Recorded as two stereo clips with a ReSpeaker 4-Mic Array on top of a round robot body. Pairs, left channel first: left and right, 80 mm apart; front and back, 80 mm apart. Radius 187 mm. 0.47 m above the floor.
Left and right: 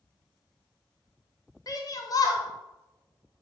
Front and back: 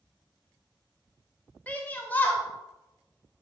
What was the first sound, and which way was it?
A shout, 65° left.